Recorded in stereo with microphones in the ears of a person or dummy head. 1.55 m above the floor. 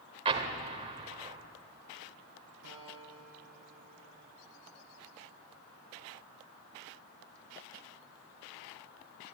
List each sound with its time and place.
0.2 s an explosion: 35° right (ahead or behind), 1.9 m
2.6 s a guitar: 65° right (ahead or behind), 7 m